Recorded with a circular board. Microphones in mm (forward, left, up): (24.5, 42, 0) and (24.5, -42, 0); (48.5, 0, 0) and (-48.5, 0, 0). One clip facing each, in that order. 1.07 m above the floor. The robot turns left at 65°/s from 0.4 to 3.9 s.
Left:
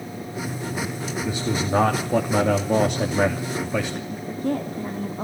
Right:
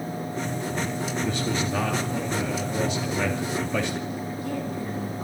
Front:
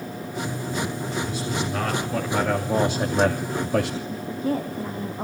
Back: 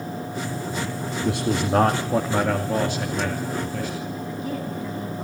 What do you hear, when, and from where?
1.2 s a man speaking: straight behind, 2.5 m; by 4.0 s 5° left, 2.5 m
4.1 s a woman speaking: 50° left, 2 m